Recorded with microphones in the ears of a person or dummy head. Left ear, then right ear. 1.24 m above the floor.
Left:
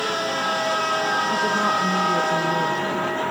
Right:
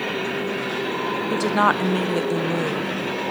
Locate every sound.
1.3 s a woman speaking: 55° right (ahead or behind), 0.6 m